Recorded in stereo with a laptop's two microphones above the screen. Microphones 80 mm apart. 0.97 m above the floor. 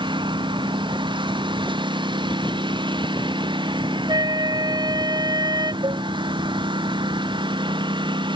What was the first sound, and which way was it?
A lawn mower, 90° right.